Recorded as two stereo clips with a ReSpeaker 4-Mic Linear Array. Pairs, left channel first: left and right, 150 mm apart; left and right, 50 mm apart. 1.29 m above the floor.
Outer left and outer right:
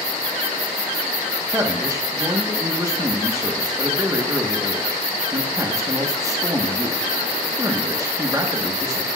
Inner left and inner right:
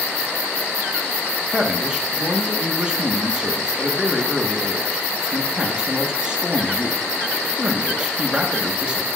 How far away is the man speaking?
About 1.4 m.